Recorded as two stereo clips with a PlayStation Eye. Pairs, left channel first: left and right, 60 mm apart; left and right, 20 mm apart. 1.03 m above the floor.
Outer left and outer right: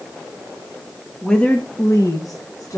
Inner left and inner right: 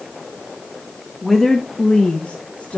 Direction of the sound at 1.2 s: 10° left (ahead or behind).